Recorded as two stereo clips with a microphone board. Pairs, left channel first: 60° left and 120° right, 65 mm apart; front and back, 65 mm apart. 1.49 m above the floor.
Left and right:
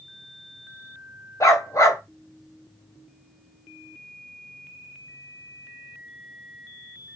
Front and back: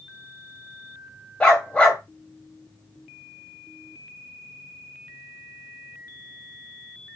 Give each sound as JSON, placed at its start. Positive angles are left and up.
{"t": 1.4, "sound": "a dog barking", "azimuth_deg": 70, "distance_m": 1.5}